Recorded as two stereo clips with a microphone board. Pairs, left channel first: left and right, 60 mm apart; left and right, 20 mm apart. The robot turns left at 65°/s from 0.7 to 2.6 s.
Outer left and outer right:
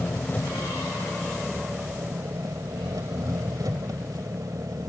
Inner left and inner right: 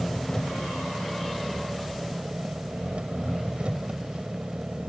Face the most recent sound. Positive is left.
turn(degrees=-100)